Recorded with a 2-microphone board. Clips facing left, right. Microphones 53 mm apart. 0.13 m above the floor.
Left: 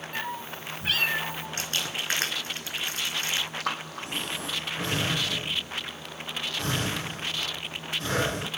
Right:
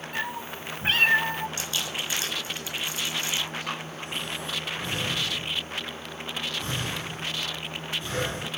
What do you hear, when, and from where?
0.1 s a cat meowing: 10° right (ahead or behind), 1.5 m; by 1.5 s 60° right (ahead or behind), 0.8 m
1.6 s crumpling: 50° left (ahead or behind), 3.5 m
3.6 s breathing: 80° left, 3 m